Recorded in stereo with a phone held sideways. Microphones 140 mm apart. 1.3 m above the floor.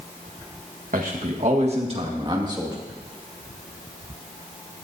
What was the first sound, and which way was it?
A man speaking, 70° right (ahead or behind).